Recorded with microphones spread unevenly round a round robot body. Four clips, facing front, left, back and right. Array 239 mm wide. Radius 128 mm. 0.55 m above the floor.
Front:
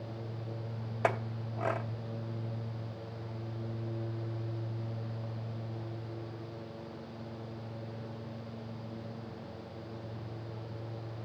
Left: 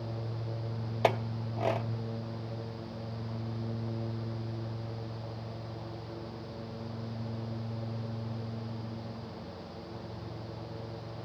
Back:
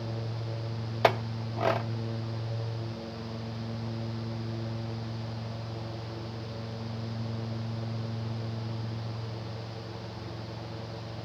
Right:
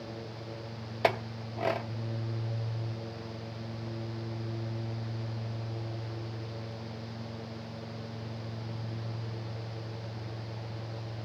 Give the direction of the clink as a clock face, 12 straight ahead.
6 o'clock.